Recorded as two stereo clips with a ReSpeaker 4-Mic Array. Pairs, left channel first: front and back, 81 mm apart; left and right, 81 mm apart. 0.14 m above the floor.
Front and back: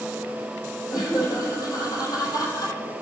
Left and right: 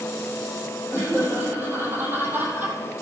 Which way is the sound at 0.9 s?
30° right.